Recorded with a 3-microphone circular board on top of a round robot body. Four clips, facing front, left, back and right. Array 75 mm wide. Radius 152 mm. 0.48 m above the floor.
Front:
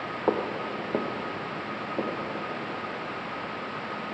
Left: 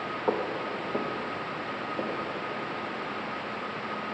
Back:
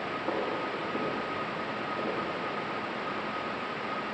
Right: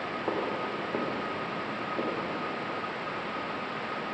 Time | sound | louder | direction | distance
0.3 | footsteps | left 3 dB, front 5 dB | 10° left | 2.0 m